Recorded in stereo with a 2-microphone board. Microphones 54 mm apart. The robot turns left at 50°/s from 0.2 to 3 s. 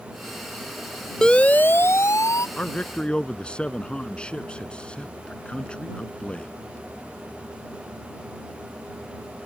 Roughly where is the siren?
Centre.